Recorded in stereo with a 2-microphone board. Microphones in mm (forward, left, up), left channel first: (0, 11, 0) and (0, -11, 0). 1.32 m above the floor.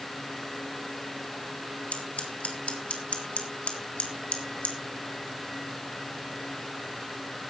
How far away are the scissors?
About 2 m.